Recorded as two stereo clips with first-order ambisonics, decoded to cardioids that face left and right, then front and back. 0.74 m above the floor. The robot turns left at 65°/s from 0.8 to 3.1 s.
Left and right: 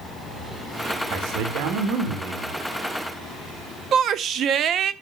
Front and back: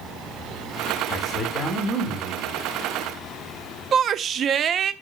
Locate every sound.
1.1 s a man speaking: 60° right, 2.5 m; by 2.6 s 155° right, 2.5 m
3.9 s a shout: 130° right, 0.6 m